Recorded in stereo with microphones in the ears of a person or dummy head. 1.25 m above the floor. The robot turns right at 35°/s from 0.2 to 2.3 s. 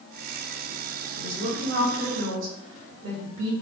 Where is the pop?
I don't hear a pop.